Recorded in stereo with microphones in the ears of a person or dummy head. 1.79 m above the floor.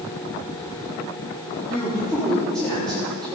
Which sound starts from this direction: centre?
A woman speaking, at 1.7 s.